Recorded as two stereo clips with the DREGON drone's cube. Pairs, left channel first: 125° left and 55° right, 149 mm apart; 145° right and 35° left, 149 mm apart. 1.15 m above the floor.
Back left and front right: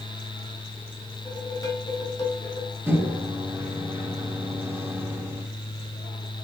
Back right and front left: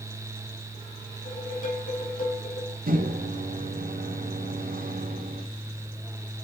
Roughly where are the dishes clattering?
Behind.